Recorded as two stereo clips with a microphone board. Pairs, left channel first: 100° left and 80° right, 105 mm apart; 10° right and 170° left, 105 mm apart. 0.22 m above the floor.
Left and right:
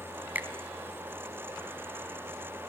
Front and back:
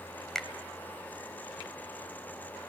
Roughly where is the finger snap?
Right.